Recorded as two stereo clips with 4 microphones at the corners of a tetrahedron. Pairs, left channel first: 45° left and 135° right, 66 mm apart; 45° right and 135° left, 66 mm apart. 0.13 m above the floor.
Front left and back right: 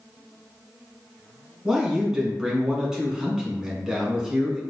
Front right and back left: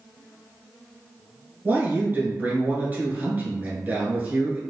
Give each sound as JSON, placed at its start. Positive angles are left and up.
{"t": 1.6, "sound": "a man speaking", "azimuth_deg": 155, "distance_m": 1.4}